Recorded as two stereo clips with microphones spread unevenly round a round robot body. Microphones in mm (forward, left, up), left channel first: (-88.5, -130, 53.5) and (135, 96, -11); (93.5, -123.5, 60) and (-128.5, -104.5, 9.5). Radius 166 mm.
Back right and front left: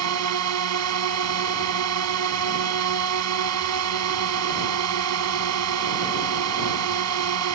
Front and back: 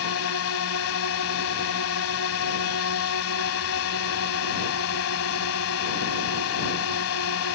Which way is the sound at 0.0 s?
30° left.